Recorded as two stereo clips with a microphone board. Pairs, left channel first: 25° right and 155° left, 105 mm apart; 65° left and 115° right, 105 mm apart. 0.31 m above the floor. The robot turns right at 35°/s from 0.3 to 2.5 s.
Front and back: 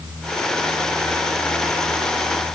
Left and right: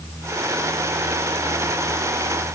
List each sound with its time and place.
Only background noise.